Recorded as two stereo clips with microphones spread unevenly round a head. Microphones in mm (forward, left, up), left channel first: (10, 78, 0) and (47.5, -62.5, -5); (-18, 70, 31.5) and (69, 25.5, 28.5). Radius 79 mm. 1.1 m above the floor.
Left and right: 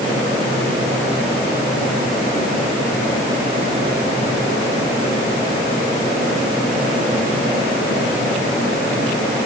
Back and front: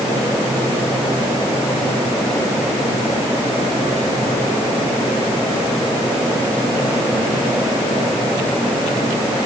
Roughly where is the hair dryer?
I don't hear a hair dryer.